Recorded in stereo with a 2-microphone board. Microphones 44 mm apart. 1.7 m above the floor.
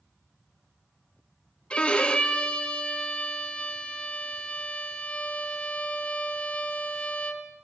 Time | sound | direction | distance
1.7 | a violin | 25° left (ahead or behind) | 0.8 m